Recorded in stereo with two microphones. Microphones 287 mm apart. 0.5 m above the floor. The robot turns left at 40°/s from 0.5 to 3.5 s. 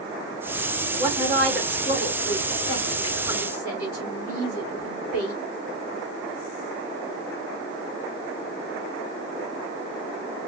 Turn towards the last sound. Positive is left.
turn(degrees=55)  # may be behind; listen again after turning